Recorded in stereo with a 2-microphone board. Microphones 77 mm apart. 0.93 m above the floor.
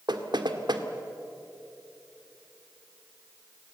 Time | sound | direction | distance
0.1 | knocking | 75° right (ahead or behind) | 1.7 m